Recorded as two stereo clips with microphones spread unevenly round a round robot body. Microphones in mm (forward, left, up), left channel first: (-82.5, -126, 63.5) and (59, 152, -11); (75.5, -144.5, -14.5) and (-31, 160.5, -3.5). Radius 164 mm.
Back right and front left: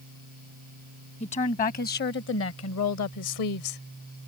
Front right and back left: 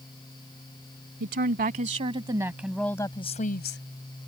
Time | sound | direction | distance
1.2 | a woman speaking | 170° left | ?